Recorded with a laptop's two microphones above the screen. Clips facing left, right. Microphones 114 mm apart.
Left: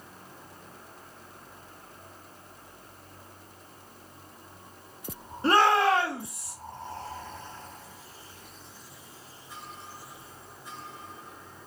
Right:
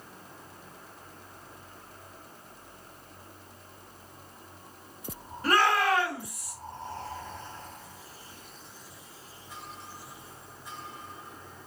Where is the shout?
25° left (ahead or behind), 0.8 m.